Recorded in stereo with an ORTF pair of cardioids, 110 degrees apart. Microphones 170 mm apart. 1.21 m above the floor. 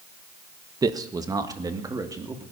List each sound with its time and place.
0.8 s a man speaking: 25° right, 1.2 m; by 2.4 s 20° right, 3 m